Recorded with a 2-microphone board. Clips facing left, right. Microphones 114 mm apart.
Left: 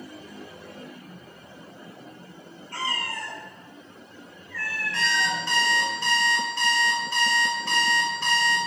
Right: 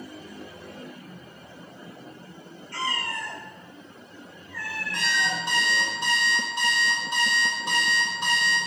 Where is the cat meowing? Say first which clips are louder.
Right 1 dB; 45° left (ahead or behind), 1.1 m; by 5.4 s 40° right (ahead or behind), 1.1 m.